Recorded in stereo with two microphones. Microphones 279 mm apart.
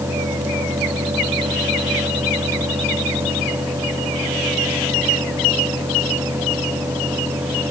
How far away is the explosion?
No explosion in this recording.